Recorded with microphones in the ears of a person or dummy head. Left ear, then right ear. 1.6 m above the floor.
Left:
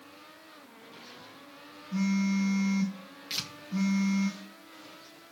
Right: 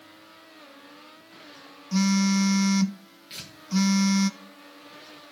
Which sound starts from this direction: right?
A phone buzzing, at 1.9 s.